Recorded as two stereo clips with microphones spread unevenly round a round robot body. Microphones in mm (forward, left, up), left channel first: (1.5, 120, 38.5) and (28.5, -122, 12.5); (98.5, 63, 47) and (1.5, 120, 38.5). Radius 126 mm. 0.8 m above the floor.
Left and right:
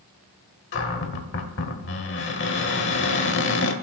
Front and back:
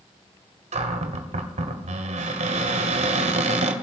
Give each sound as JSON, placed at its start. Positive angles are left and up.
{"t": 0.7, "sound": "a cupboard door", "azimuth_deg": 140, "distance_m": 1.5}